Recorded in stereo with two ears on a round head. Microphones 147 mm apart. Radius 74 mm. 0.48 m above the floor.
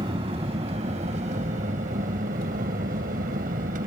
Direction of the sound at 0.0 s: 35° right (ahead or behind).